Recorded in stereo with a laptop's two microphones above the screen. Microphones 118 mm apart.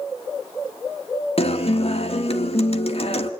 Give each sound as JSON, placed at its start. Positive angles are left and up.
{"t": 1.4, "sound": "a guitar", "side_deg": 55, "distance_m": 1.6}